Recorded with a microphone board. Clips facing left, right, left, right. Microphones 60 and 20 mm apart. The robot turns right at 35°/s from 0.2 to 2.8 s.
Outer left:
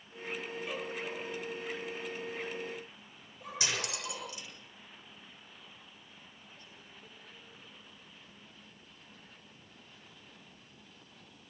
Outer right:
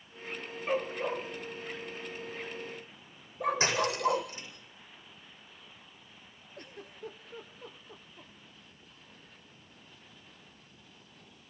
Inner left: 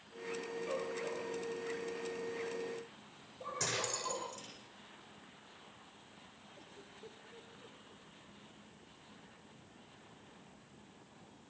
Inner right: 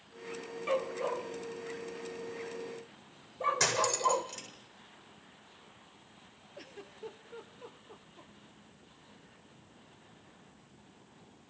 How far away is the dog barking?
About 2.5 m.